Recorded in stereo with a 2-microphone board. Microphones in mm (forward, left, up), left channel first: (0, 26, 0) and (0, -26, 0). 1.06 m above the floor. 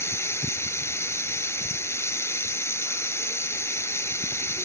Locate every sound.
0.0 s running water: 55° left (ahead or behind)